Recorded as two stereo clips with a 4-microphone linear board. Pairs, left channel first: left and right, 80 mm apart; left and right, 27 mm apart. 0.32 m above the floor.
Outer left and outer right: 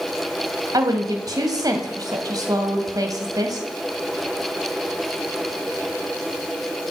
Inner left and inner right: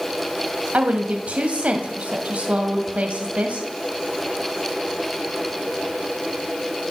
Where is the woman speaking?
50° right (ahead or behind), 2 m.